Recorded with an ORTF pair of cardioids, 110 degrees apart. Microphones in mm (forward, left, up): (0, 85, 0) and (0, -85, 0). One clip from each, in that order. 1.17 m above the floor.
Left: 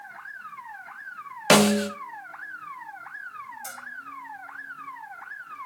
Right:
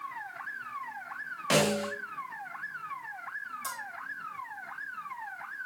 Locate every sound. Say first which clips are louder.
1.5 s a snare drum: left 8 dB; 70° left, 1.2 m
3.6 s a bell: right 1 dB; 5° left, 3.5 m